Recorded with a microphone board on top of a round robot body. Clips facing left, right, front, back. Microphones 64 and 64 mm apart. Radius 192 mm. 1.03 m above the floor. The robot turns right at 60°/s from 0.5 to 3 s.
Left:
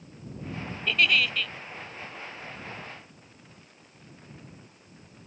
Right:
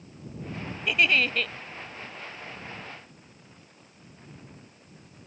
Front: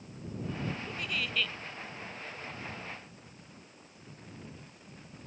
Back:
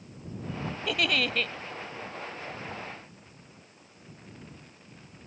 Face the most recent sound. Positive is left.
turn(degrees=-40)